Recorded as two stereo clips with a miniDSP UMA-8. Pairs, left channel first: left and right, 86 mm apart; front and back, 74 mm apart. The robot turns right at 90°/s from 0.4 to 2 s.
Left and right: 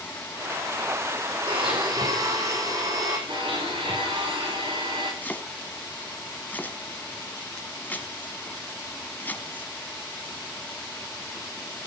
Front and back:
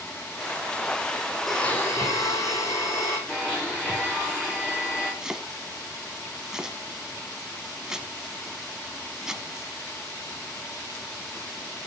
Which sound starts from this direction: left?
Chopping, at 5.2 s.